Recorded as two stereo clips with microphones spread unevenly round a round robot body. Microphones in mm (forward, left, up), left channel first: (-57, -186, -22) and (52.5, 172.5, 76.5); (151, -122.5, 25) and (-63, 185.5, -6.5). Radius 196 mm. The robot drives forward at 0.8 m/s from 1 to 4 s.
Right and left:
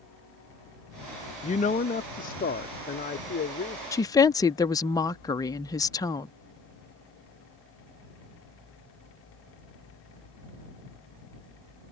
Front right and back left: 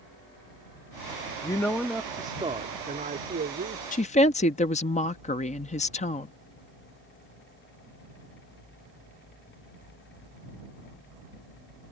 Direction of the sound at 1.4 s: 135° right.